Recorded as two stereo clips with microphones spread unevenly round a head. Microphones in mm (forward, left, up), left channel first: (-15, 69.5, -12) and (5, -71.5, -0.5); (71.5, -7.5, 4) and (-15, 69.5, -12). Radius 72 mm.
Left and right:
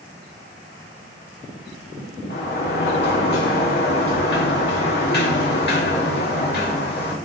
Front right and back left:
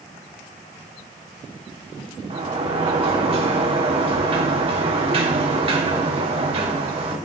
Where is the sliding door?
105° left, 1.8 m.